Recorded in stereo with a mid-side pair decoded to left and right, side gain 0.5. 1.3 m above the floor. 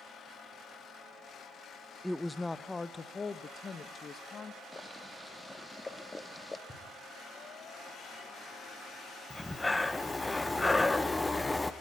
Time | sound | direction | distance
2.0 | a woman speaking | 5° left | 1.0 m
4.7 | boiling | 20° left | 1.9 m
6.7 | knocking | 25° left | 6 m
9.3 | breathing | 15° left | 1.4 m